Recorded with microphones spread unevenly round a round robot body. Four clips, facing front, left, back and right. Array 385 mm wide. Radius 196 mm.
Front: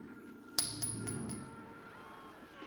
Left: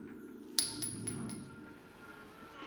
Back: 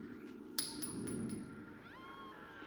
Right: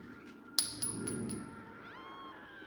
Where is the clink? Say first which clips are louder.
Right 4 dB, front 1 dB; straight ahead, 0.8 m.